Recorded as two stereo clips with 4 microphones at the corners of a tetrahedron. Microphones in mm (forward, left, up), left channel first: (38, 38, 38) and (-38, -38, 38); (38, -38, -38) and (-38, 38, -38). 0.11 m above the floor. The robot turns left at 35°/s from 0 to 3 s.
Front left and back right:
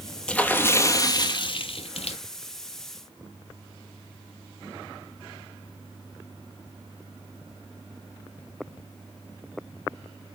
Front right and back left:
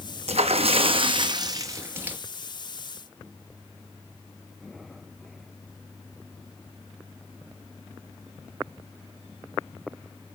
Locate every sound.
0.3 s a splash: 125° left, 1.1 m; by 2.2 s 60° left, 1.1 m